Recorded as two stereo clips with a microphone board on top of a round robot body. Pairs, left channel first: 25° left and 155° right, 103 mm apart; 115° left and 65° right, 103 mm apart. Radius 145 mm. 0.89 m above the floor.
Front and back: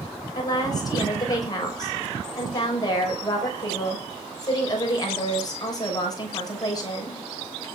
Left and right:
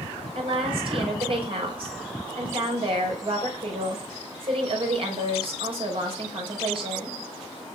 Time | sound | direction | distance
0.3 | a woman speaking | 30° right | 6 m